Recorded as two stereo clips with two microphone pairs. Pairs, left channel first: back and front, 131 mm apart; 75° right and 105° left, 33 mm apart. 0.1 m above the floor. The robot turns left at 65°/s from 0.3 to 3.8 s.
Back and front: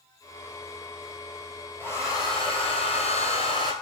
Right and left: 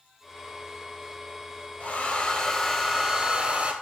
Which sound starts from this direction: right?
A hair dryer, at 1.8 s.